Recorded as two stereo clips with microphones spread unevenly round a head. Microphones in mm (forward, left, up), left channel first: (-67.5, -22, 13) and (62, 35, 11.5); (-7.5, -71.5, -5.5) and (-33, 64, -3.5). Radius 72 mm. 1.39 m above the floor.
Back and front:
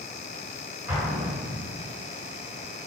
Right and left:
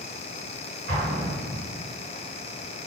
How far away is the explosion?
About 1.9 m.